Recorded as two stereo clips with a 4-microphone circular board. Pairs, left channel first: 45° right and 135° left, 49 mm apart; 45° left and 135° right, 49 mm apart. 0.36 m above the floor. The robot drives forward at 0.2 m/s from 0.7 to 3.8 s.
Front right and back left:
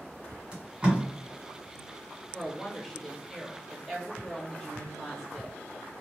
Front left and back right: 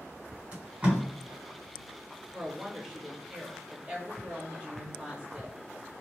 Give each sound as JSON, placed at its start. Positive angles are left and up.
{"t": 0.5, "sound": "tape being pulled", "azimuth_deg": -175, "distance_m": 1.5}
{"t": 2.3, "sound": "a woman speaking", "azimuth_deg": -60, "distance_m": 0.8}